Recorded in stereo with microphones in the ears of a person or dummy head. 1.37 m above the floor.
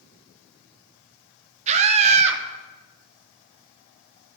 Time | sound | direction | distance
1.7 | a scream | 35° right (ahead or behind) | 1.2 m